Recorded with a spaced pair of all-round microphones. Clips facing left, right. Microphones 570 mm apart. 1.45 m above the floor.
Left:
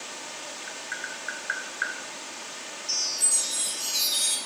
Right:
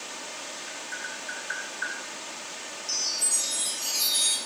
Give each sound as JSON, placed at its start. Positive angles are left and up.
{"t": 0.7, "sound": "tapping", "side_deg": 80, "distance_m": 1.0}
{"t": 2.9, "sound": "a chime", "side_deg": 60, "distance_m": 1.9}